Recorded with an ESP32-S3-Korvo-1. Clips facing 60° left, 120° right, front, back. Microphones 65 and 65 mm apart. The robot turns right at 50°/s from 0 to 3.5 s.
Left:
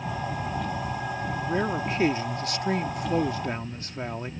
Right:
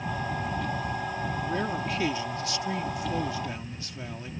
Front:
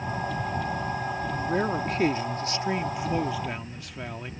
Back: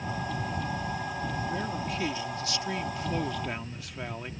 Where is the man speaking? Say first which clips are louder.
Left 4 dB, front 6 dB; 20° right; by 4.3 s 90° left.